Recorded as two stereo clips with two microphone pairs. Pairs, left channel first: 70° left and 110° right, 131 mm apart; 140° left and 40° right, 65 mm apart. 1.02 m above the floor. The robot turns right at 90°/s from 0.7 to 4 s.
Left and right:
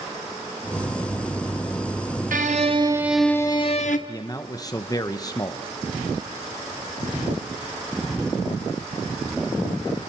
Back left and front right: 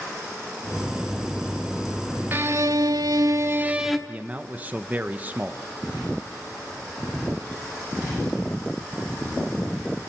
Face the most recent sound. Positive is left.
turn(degrees=15)